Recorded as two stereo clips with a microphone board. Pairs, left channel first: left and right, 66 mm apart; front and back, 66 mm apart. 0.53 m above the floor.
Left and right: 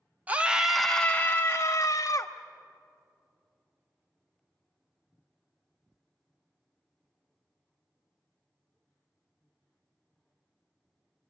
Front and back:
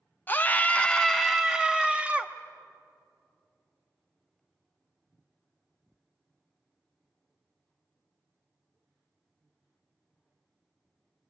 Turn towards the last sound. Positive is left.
turn(degrees=110)